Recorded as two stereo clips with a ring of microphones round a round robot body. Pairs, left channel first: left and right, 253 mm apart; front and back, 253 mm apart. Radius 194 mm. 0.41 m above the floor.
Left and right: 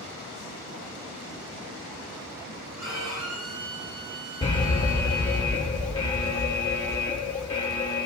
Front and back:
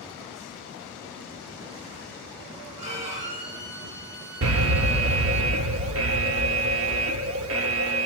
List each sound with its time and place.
2.8 s a violin: 125° right, 4.5 m
4.4 s an alarm: 160° left, 0.9 m